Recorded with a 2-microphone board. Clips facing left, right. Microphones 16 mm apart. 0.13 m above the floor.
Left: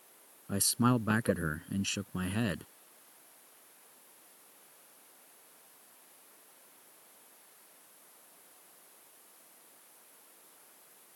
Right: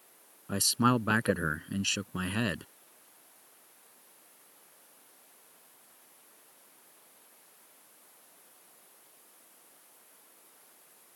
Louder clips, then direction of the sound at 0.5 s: Right 3 dB; 20° right (ahead or behind).